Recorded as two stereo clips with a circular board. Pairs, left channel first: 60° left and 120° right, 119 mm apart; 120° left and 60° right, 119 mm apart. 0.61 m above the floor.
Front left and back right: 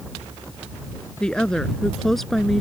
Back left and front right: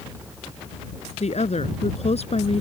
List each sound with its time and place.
1.2 s a woman speaking: 145° left; by 2.6 s 150° left